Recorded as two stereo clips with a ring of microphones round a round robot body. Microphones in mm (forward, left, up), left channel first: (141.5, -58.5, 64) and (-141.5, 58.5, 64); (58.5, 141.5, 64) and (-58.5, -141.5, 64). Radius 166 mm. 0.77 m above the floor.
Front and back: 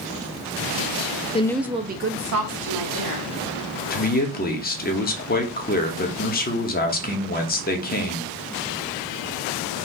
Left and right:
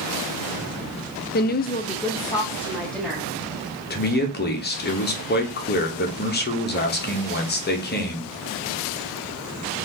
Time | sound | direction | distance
1.3 | a woman speaking | 35° left | 0.7 m
3.9 | a man speaking | 25° left | 1.2 m